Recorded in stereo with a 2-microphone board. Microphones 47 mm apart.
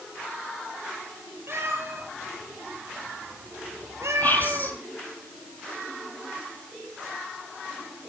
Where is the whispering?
40° left (ahead or behind), 4 m.